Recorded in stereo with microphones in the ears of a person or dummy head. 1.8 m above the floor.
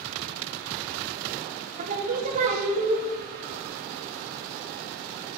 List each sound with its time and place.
1.8 s singing: 50° right (ahead or behind), 1.6 m